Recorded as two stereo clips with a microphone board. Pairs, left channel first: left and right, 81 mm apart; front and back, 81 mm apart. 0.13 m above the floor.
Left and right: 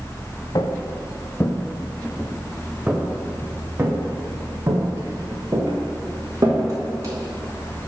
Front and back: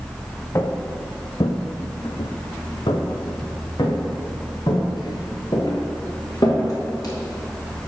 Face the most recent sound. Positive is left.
turn(degrees=-40)